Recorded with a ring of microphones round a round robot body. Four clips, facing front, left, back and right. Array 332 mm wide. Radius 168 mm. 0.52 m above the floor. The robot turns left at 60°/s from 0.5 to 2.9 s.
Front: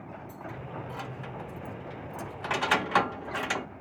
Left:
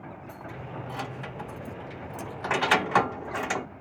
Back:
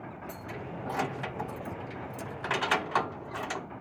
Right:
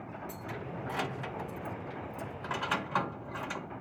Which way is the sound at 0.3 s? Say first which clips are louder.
Left 3 dB, even; 140° right.